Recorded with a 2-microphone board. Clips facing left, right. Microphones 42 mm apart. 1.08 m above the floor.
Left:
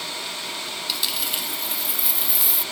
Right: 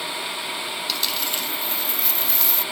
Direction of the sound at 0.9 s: 5° left (ahead or behind).